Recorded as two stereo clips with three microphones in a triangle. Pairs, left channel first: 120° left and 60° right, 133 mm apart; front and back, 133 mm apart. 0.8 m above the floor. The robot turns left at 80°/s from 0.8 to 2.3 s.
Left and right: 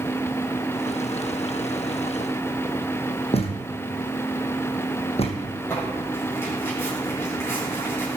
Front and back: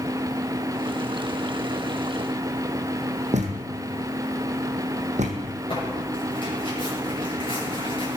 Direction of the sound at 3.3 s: 155° left.